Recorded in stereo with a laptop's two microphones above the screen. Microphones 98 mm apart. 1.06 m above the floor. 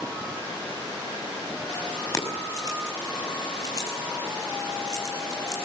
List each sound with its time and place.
2.1 s keys jangling: 40° left (ahead or behind), 6 m